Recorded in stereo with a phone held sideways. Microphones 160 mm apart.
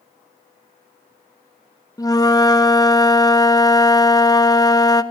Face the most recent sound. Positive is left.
turn(degrees=20)  # may be behind; listen again after turning